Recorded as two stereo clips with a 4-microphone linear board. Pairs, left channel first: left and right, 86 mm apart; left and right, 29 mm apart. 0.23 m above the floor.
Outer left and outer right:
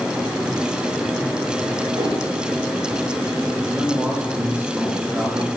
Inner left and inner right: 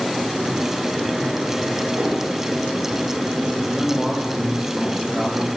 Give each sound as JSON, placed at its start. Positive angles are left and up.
{"t": 1.9, "sound": "a whoosh", "side_deg": -60, "distance_m": 9.0}
{"t": 3.7, "sound": "a man speaking", "side_deg": -20, "distance_m": 6.5}